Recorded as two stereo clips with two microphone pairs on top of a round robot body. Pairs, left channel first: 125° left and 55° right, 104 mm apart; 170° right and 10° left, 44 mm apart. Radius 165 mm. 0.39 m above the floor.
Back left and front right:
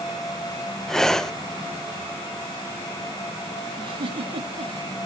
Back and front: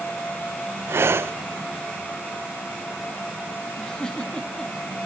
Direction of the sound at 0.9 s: 40° left.